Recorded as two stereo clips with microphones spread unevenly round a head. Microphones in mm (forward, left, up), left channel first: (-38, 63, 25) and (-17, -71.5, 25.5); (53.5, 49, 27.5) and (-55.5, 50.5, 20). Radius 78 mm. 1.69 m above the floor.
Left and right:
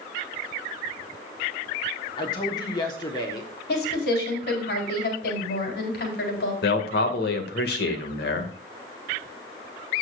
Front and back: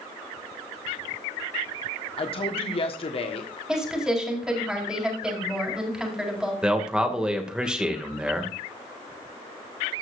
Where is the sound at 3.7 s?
95° left, 4.5 m.